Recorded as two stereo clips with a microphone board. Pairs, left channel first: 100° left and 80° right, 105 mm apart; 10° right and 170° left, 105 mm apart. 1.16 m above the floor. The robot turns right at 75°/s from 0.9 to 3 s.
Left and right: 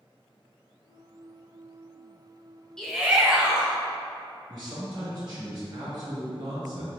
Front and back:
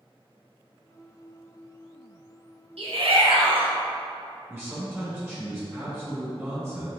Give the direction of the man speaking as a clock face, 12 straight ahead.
4 o'clock.